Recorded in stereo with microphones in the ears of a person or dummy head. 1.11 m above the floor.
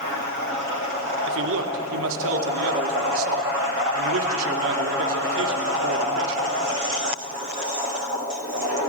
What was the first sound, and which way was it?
A man speaking, 65° right (ahead or behind).